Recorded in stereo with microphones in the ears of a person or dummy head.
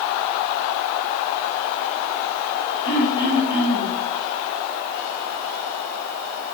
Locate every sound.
2.9 s throat clearing: 5° right (ahead or behind), 3.5 m